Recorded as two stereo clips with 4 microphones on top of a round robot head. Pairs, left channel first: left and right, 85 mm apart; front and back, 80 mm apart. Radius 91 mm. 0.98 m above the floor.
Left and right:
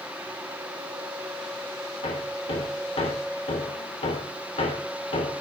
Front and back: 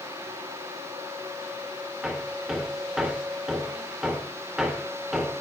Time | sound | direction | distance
2.0 | hammering | 100° left | 3 m